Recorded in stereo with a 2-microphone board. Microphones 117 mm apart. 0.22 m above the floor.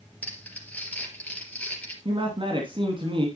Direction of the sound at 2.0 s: 45° right (ahead or behind).